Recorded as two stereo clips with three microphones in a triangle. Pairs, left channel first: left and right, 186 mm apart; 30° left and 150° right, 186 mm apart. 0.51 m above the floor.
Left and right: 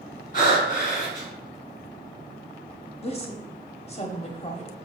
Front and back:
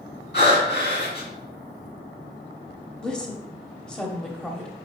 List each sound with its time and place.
0.3 s breathing: 50° left, 2.5 m
3.0 s a woman speaking: 110° left, 0.8 m